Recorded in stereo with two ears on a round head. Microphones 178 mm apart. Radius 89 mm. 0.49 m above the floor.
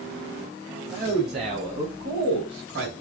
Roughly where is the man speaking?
Right.